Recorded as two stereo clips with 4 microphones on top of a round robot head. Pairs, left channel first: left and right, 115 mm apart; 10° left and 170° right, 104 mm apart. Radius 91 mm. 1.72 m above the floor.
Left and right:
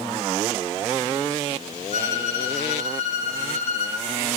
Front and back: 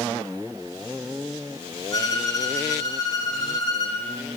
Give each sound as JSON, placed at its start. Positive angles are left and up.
{"t": 1.9, "sound": "a violin", "azimuth_deg": 65, "distance_m": 4.0}